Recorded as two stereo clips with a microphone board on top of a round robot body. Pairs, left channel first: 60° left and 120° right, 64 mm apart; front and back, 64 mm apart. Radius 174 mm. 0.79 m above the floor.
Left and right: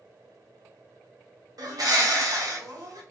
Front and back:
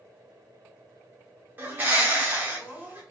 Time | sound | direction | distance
1.6 | a bird | 125° right | 1.2 m